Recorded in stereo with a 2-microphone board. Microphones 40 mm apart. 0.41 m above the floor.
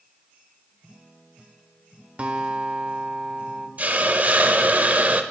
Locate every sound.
2.2 s a guitar: 35° right (ahead or behind), 1.0 m
3.8 s a hiss: 40° right (ahead or behind), 0.6 m